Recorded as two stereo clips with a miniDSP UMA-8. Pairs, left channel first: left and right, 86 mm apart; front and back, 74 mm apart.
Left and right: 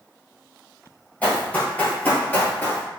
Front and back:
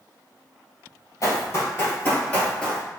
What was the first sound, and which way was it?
Running footsteps, 30° left.